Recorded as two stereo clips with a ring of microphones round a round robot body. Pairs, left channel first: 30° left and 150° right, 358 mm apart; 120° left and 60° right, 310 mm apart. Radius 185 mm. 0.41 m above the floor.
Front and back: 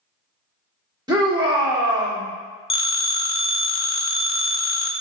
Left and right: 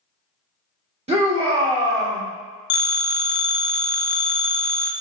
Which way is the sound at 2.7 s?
95° left.